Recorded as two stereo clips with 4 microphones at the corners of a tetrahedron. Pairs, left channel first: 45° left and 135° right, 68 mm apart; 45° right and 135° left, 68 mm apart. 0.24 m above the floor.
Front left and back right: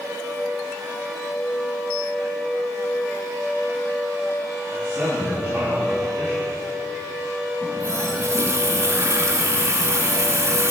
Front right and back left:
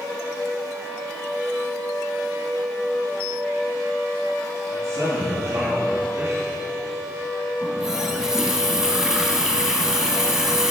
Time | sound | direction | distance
4.7 | a man speaking | 170° left | 2.5 m
7.6 | a running tap | 145° right | 0.8 m